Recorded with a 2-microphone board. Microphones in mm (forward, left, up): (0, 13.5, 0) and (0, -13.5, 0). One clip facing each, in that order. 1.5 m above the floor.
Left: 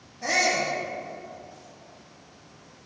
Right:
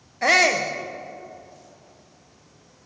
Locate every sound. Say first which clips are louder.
0.2 s a shout: right 6 dB; 80° right, 1.0 m